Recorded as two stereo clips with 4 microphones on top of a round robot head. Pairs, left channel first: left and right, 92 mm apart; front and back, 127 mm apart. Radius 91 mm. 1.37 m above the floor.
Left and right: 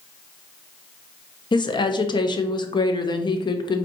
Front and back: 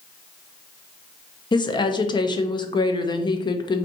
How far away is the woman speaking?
About 0.8 m.